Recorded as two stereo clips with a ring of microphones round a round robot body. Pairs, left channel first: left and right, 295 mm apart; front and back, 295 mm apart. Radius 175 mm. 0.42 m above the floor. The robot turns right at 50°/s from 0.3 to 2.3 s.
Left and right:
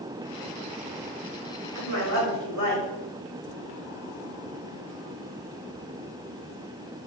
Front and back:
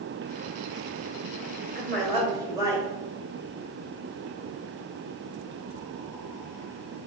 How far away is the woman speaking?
About 1.5 m.